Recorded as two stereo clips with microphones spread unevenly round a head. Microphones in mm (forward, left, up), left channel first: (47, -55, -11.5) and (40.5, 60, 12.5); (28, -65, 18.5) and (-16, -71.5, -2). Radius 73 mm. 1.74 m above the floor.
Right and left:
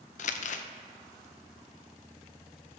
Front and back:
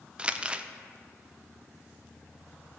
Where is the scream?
No scream in this recording.